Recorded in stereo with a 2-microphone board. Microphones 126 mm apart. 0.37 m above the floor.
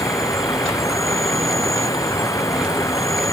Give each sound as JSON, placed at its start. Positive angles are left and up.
{"t": 0.0, "sound": "an insect", "side_deg": 25}